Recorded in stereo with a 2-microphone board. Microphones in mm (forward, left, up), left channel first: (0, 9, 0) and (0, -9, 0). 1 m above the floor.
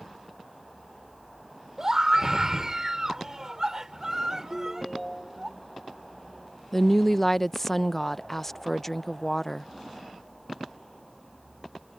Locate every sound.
1.8 s a scream: 30° right (ahead or behind)
4.5 s a ringtone: 5° left (ahead or behind)
6.7 s a woman speaking: 15° left (ahead or behind)